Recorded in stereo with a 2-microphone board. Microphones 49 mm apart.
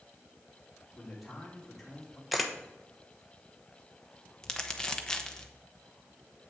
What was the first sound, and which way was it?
A man speaking, 5° left (ahead or behind).